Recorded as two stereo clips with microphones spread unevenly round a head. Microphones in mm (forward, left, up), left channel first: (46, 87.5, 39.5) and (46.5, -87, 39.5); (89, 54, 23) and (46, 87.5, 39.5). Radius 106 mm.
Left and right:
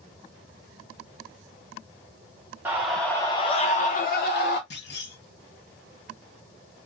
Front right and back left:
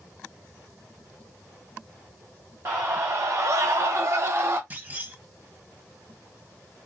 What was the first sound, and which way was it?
A scream, 160° right.